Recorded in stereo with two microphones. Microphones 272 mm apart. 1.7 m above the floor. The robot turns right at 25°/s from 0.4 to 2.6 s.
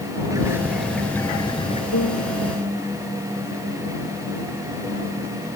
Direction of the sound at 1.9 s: 75° left (ahead or behind).